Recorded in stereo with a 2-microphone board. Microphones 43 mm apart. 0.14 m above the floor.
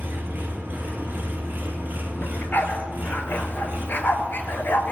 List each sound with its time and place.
0.0 s an engine running: 45° right (ahead or behind), 1.2 m
2.2 s a dog barking: 50° left (ahead or behind), 0.6 m